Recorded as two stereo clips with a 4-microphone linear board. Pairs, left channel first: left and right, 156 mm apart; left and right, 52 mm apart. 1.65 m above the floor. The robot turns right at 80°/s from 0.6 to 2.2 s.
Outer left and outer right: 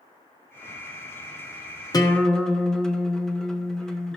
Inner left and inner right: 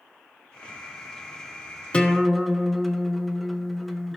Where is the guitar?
25° left (ahead or behind), 1.1 m; by 4.2 s 5° left (ahead or behind), 1.1 m.